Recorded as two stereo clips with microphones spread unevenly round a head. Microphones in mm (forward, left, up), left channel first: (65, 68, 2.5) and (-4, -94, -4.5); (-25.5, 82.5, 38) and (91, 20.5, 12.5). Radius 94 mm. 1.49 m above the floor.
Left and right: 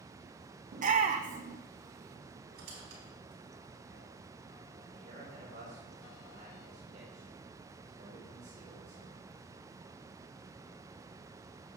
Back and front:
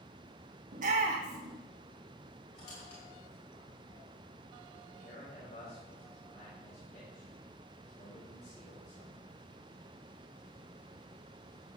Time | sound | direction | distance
0.7 | a shout | 65° right | 0.9 m
2.5 | a squeak | 155° right | 4 m
4.9 | a man speaking | 170° right | 4.5 m